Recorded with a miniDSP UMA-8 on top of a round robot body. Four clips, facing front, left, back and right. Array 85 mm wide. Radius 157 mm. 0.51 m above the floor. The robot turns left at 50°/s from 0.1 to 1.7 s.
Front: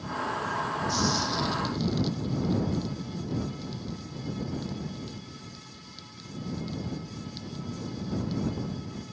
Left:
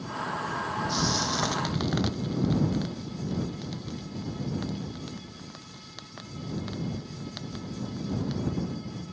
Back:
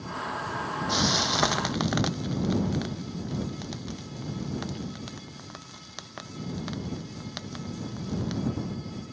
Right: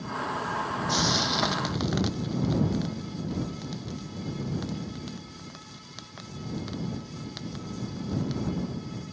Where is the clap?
I don't hear a clap.